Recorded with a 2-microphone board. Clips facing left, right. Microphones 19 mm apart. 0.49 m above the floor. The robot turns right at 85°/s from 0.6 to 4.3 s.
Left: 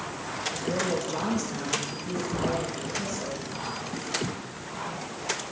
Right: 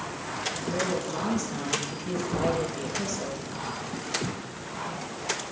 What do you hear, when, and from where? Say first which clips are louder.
0.5 s a woman speaking: left 1 dB; 100° left, 10 m; by 3.3 s 30° right, 10 m
2.3 s a thud: right 2 dB; 20° right (ahead or behind), 10 m; by 2.6 s 45° right (ahead or behind), 10 m